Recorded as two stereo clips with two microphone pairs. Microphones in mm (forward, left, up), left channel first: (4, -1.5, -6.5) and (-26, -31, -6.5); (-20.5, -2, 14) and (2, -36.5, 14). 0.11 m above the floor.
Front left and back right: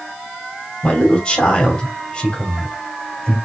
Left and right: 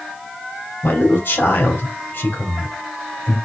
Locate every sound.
0.8 s a man speaking: 110° left, 2.5 m